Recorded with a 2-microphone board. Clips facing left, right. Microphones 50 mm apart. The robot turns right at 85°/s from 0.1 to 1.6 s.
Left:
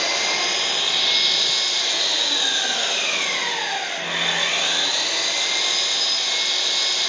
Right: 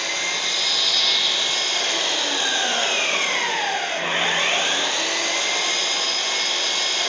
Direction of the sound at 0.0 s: 95° left.